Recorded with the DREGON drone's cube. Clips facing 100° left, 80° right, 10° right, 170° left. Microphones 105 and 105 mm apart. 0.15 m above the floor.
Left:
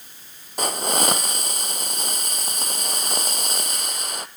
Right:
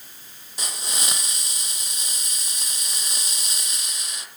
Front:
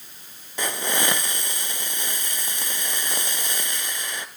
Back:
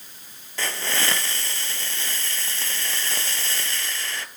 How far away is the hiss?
About 0.8 m.